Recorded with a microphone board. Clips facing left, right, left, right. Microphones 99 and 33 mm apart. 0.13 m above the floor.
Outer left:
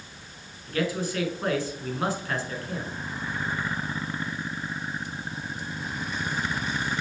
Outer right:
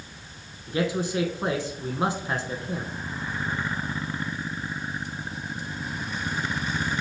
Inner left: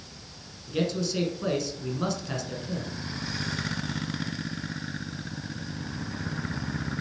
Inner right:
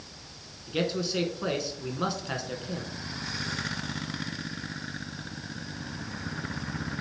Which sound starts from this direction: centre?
A man speaking, at 0.7 s.